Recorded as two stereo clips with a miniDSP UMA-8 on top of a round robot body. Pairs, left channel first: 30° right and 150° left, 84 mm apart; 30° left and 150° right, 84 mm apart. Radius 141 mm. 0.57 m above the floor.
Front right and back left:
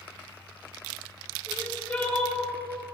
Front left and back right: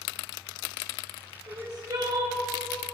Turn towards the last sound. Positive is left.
turn(degrees=-100)